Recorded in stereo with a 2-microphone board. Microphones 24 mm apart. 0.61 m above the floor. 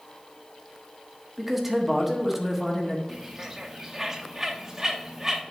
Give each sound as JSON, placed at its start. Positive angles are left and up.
{"t": 1.4, "sound": "a man speaking", "side_deg": -10, "distance_m": 1.1}
{"t": 3.1, "sound": "a bird", "side_deg": -20, "distance_m": 0.8}